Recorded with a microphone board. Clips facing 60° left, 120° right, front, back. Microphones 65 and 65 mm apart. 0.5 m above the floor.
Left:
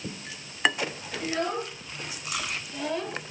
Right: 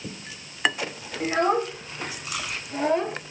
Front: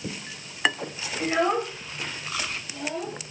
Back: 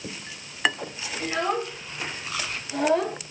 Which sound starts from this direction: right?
A child speaking, at 1.2 s.